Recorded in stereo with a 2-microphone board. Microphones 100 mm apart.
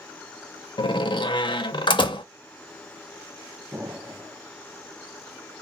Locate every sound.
0.8 s a door slam: 50° left (ahead or behind), 0.6 m
3.7 s an explosion: 25° right (ahead or behind), 0.7 m